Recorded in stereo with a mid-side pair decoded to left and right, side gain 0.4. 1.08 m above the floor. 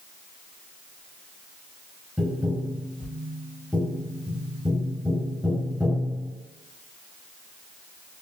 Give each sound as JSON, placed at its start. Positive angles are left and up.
{"t": 2.2, "sound": "tapping", "azimuth_deg": 5, "distance_m": 1.0}